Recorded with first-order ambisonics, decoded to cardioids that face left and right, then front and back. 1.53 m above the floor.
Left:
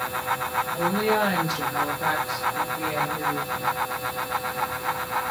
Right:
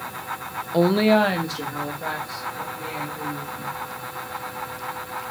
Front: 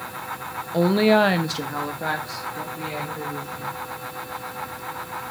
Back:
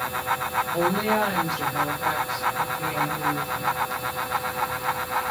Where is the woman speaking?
70° right, 0.5 m; by 3.7 s 35° left, 2.5 m.